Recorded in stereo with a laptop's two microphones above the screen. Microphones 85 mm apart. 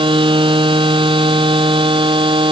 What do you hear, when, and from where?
0.0 s a machine running: 75° right (ahead or behind)